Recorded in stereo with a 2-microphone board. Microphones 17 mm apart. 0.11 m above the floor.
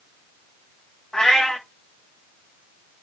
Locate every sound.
1.1 s a cat meowing: 50° left (ahead or behind), 3 m